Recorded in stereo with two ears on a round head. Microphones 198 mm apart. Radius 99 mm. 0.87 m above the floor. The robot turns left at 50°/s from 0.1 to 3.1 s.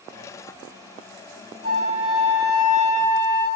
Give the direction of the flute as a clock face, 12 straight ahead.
5 o'clock.